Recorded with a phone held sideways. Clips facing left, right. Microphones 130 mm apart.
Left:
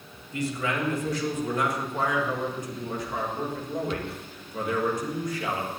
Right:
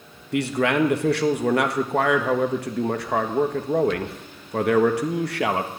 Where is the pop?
I don't hear a pop.